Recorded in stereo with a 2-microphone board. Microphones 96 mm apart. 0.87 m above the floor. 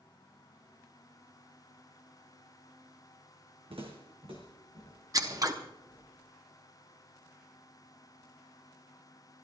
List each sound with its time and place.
3.7 s footsteps: 70° right (ahead or behind), 2.5 m; by 6.0 s 45° right (ahead or behind), 5.5 m
5.1 s scissors: 35° right (ahead or behind), 1.1 m